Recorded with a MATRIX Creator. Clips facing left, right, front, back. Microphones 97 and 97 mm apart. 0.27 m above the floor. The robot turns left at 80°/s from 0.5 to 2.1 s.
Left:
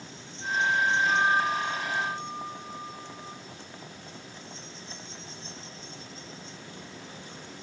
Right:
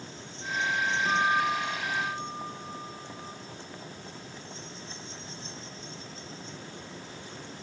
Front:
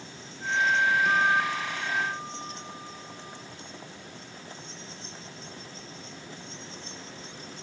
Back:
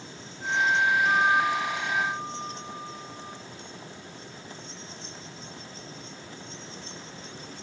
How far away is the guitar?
About 2 m.